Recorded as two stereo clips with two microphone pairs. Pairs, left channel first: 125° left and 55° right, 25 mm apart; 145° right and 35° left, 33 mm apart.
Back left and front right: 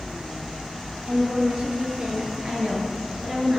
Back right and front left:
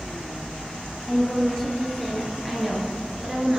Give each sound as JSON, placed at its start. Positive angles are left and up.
{"t": 1.1, "sound": "a woman speaking", "azimuth_deg": -75, "distance_m": 2.5}